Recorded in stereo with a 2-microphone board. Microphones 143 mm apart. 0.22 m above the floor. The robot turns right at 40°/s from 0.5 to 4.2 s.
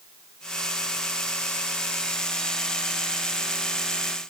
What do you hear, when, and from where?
Only background noise.